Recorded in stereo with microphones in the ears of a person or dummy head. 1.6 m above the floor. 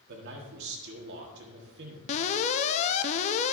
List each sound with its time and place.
0.1 s a man speaking: 70° right (ahead or behind), 1.5 m
2.1 s an alarm: 40° left (ahead or behind), 0.6 m